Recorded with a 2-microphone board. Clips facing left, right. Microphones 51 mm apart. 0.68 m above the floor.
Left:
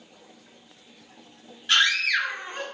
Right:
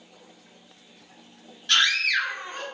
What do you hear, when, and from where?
1.7 s a scream: 15° left (ahead or behind), 1.7 m